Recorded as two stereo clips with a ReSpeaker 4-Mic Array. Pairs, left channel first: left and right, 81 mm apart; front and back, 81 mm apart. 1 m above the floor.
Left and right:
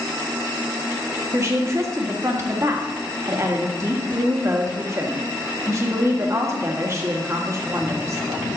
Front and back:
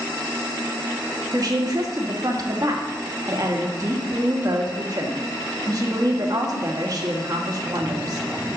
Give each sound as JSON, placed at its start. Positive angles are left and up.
{"t": 1.3, "sound": "a woman speaking", "azimuth_deg": -140, "distance_m": 1.6}